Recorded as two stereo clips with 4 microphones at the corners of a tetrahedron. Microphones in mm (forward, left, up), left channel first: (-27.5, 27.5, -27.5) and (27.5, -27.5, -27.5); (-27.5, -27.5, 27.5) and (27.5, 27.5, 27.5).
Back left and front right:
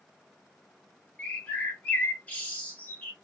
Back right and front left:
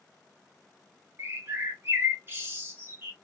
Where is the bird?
80° left, 0.8 m.